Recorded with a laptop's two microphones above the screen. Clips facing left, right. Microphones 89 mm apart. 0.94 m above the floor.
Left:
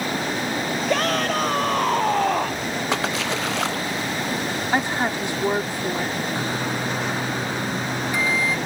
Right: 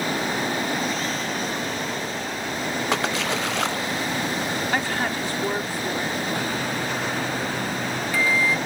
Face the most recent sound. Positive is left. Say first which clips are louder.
# left 1 dB
turn(degrees=20)  # may be behind; listen again after turning